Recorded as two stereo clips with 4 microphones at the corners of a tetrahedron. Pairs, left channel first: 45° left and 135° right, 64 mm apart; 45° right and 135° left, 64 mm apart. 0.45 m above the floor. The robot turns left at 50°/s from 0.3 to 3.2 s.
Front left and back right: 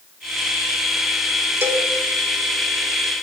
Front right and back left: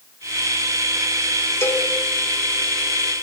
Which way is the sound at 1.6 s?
90° right.